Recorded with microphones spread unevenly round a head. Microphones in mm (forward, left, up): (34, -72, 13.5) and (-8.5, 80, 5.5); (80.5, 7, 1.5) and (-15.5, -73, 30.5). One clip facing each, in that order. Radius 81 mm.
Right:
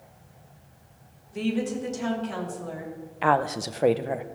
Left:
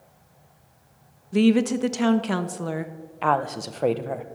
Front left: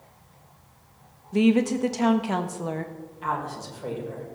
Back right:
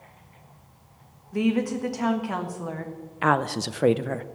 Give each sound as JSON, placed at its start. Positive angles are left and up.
{"t": 1.3, "sound": "a woman speaking", "azimuth_deg": 105, "distance_m": 1.3}
{"t": 3.2, "sound": "a woman speaking", "azimuth_deg": -160, "distance_m": 0.7}